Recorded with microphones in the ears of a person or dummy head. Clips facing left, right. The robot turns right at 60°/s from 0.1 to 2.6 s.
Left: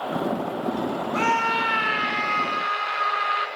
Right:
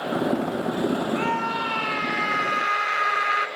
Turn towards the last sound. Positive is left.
turn(degrees=-150)